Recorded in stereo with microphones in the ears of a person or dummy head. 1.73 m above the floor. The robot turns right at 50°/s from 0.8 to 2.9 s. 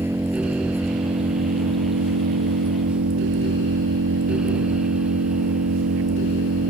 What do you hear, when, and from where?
0.0 s an engine running: 170° right; by 6.7 s 65° right